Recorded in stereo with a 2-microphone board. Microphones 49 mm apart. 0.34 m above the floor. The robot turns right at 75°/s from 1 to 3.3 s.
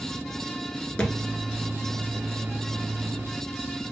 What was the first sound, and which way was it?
A thud, 25° left (ahead or behind).